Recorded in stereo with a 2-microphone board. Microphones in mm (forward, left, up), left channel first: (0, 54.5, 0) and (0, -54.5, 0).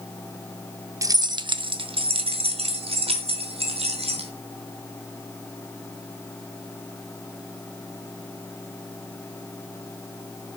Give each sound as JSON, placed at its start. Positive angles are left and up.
{"t": 1.0, "sound": "keys jangling", "side_deg": -30, "distance_m": 0.5}